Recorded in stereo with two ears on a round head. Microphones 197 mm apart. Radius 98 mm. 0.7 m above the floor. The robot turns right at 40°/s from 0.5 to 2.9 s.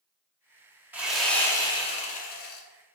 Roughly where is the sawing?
Ahead.